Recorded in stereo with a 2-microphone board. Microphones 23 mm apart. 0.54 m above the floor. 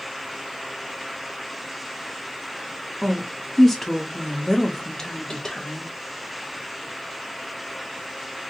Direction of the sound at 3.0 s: 5° right (ahead or behind).